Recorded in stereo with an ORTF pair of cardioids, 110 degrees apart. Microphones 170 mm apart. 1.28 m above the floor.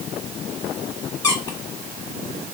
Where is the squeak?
25° left, 1.4 m.